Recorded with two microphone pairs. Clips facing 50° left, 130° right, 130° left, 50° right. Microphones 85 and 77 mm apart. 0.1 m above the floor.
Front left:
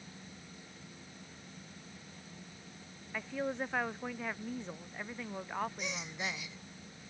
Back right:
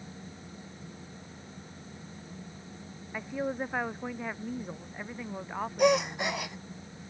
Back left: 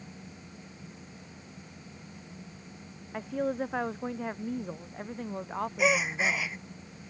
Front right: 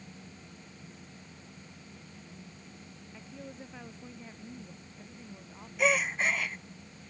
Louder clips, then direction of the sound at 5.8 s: Back right 16 dB, even; 145° right.